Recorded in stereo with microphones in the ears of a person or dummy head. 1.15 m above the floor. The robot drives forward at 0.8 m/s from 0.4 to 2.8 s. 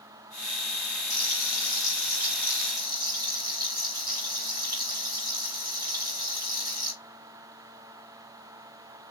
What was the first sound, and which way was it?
Frying, 25° right (ahead or behind).